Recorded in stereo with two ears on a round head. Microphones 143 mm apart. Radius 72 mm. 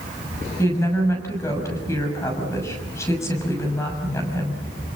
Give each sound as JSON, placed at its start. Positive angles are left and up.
{"t": 0.6, "sound": "a woman speaking", "side_deg": 15, "distance_m": 6.5}